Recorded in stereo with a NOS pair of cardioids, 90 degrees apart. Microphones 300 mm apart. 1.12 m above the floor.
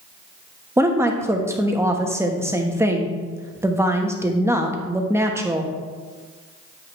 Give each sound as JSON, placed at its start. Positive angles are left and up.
{"t": 0.8, "sound": "a woman speaking", "azimuth_deg": -10, "distance_m": 1.3}